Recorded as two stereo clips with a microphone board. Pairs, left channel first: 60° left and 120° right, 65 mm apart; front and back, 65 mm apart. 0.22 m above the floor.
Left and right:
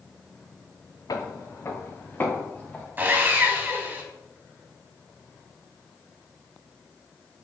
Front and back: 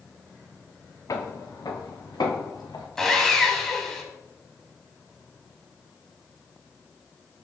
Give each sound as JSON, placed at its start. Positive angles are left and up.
{"t": 1.1, "sound": "footsteps", "azimuth_deg": 35, "distance_m": 1.0}
{"t": 3.0, "sound": "sawing", "azimuth_deg": -80, "distance_m": 0.8}